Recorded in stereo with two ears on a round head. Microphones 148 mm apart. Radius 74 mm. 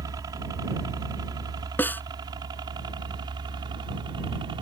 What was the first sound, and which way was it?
A helicopter, 20° right (ahead or behind).